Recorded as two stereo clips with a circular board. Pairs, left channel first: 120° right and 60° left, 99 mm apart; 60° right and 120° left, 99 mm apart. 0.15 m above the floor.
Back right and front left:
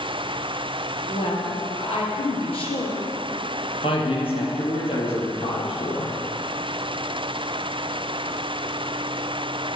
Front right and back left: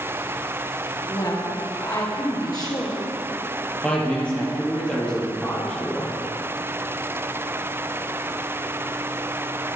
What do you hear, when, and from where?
1.1 s a woman speaking: 105° right, 3 m
3.8 s a man speaking: 140° right, 4 m